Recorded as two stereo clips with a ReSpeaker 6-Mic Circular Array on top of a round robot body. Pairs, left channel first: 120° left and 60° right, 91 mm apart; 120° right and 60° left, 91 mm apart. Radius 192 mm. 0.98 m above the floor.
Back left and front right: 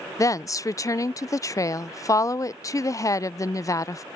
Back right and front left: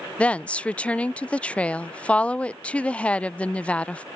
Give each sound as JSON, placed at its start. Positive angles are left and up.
{"t": 0.2, "sound": "a woman speaking", "azimuth_deg": 165}